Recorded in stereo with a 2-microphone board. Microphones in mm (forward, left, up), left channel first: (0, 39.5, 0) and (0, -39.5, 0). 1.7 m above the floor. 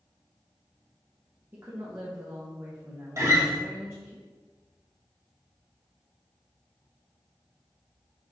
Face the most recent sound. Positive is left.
turn(degrees=-40)  # may be behind; listen again after turning